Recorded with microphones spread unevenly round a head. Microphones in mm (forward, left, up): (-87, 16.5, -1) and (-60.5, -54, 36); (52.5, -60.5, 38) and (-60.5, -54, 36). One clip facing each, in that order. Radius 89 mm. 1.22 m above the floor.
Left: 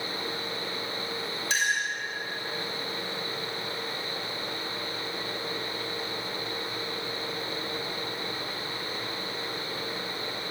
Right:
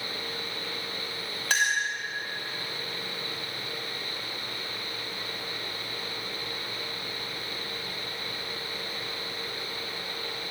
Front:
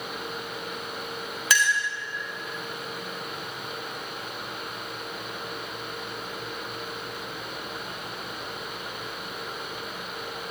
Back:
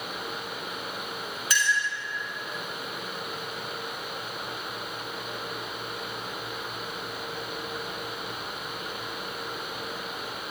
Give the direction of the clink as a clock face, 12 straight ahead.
12 o'clock.